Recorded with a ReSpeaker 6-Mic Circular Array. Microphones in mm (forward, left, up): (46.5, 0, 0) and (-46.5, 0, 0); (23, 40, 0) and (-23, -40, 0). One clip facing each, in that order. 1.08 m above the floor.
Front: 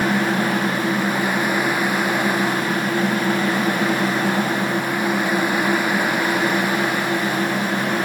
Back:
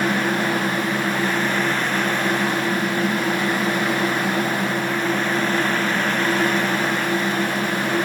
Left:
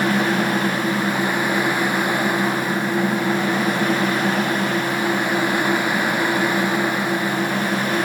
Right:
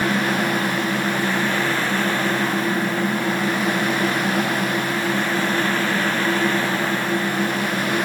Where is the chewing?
I don't hear chewing.